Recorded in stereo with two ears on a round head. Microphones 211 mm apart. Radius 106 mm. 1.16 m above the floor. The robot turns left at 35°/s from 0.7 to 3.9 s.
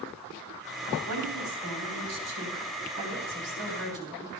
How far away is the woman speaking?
About 4 m.